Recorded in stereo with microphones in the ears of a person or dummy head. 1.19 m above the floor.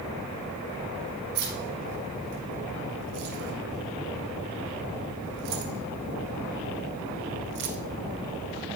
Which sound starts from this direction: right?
Keys jangling, at 1.4 s.